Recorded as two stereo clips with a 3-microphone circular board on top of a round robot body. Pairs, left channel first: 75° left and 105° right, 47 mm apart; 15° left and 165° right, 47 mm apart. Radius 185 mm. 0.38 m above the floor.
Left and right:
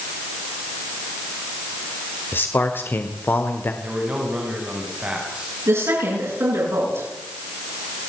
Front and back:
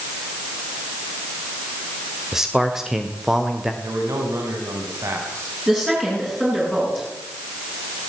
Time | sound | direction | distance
2.3 | a man speaking | 115° left | 2 m
3.8 | a man speaking | 170° right | 4.5 m
5.7 | a woman speaking | 95° right | 9.5 m